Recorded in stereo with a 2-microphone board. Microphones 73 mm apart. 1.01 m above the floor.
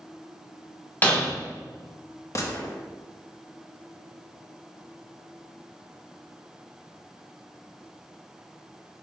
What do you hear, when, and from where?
1.0 s breaking glass: 25° left (ahead or behind), 2.5 m
2.4 s a gunshot: 40° left (ahead or behind), 1.0 m